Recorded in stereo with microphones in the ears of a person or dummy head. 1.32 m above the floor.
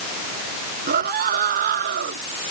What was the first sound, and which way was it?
A scream, 55° right (ahead or behind).